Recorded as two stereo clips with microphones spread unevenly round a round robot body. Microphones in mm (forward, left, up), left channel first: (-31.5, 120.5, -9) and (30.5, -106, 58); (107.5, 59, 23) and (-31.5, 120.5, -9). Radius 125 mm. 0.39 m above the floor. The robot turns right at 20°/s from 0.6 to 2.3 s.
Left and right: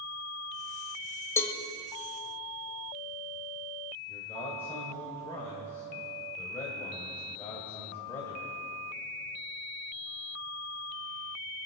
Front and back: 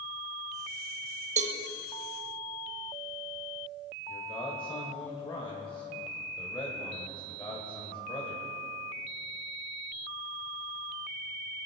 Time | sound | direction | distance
1.4 | a cowbell | 170° left | 0.9 m
4.1 | a man speaking | 40° left | 2 m